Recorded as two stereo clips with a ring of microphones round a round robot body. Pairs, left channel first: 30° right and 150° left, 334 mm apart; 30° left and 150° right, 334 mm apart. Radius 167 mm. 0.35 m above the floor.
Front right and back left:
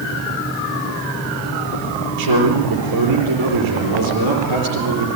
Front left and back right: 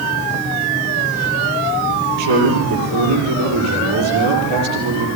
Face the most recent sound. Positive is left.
turn(degrees=170)